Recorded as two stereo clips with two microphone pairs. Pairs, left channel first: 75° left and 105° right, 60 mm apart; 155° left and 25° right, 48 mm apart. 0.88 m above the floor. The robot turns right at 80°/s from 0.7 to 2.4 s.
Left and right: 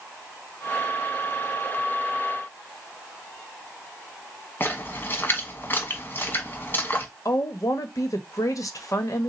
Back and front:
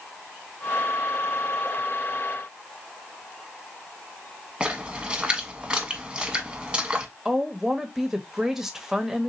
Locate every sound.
4.6 s a splash: 45° left, 1.2 m
7.2 s a woman speaking: 55° left, 0.8 m